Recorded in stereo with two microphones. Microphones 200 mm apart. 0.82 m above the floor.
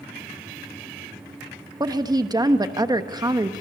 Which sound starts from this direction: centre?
A woman speaking, at 1.8 s.